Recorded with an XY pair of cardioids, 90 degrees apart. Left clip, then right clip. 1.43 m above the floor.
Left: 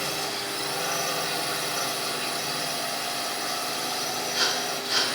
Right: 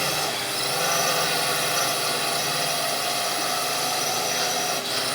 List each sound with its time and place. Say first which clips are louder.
0.0 s a drone: right 4 dB; 45° right